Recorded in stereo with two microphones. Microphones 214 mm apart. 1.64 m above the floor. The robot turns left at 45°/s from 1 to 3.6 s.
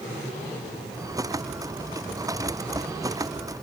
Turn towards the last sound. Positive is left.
No sound to turn to.